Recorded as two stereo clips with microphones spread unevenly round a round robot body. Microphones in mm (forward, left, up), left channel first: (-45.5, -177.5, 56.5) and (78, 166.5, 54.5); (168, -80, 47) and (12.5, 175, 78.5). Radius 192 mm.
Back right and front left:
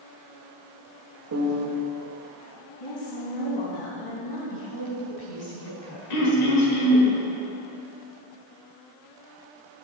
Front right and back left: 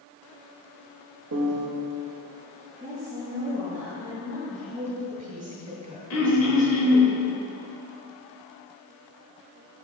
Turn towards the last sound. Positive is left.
turn(degrees=-85)